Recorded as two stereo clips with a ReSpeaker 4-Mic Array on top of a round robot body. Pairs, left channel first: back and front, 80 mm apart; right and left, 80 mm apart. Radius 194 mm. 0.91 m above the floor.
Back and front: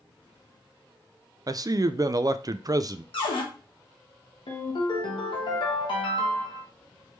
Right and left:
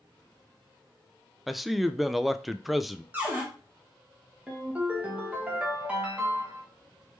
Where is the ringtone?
160° left, 1.1 m.